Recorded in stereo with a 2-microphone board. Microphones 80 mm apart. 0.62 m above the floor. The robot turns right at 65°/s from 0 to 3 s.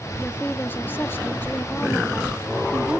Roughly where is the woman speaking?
Centre.